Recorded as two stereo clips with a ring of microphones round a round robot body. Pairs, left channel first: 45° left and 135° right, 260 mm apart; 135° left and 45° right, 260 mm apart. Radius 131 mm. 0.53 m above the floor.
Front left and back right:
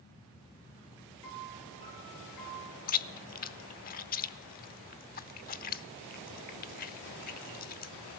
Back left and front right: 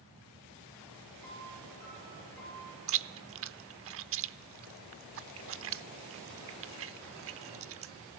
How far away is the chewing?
About 0.8 m.